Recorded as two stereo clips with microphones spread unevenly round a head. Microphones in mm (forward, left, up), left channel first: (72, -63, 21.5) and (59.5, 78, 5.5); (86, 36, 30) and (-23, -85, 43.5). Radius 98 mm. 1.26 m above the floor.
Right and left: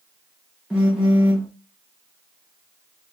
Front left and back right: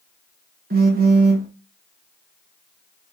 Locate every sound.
0.7 s a phone buzzing: straight behind, 1.0 m